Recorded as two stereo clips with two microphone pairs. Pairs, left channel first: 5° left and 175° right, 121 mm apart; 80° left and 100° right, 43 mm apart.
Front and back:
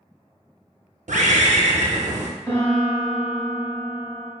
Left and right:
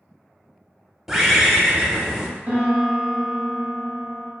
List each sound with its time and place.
1.1 s a bird: 175° left, 0.5 m
2.5 s a piano: 65° right, 1.2 m